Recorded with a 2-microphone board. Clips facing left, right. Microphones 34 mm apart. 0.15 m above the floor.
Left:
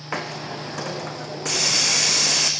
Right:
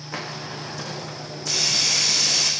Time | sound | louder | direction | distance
0.1 | a hiss | left 3 dB | 70° left (ahead or behind) | 3.5 m